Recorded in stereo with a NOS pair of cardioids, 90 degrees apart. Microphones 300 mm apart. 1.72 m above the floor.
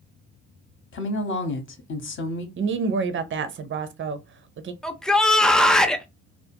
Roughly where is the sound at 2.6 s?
Ahead right.